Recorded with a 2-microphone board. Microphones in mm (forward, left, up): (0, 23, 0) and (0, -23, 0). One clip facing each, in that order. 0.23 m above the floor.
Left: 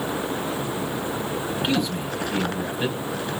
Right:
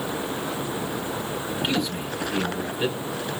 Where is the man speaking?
Centre (ahead or behind), 3 m.